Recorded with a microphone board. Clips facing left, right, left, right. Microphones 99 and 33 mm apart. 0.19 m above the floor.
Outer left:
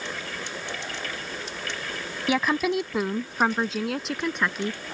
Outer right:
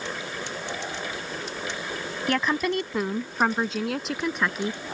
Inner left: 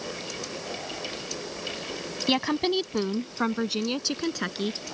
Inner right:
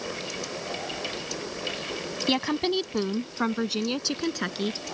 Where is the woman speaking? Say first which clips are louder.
Outer left 1 dB, inner left 1 dB; 5° left (ahead or behind); by 4.8 s centre (ahead or behind).